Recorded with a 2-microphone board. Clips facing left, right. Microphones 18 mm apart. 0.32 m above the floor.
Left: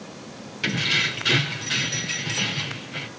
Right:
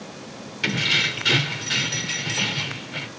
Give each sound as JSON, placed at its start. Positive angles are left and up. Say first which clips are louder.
{"t": 0.6, "sound": "keys jangling", "louder": "right 1 dB", "side_deg": -5, "distance_m": 0.6}